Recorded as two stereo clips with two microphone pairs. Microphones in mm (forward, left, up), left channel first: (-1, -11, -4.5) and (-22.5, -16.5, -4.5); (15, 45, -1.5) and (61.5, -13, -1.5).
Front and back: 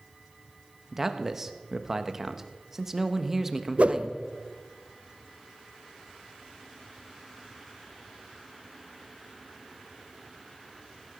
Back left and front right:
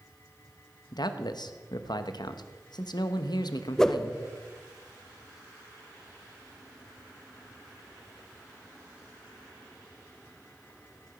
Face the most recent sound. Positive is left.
turn(degrees=-150)